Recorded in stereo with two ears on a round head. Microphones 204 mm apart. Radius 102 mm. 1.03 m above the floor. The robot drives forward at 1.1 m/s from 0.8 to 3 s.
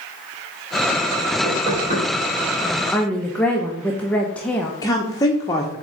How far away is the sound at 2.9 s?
About 0.5 m.